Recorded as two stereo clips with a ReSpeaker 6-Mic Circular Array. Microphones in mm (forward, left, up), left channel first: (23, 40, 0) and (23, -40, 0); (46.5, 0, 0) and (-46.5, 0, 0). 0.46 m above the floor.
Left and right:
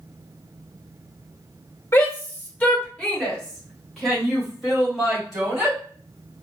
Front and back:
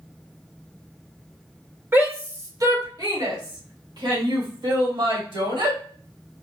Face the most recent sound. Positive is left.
turn(degrees=-175)